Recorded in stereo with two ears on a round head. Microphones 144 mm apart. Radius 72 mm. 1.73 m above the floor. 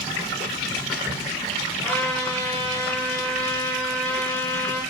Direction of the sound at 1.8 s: 15° left (ahead or behind).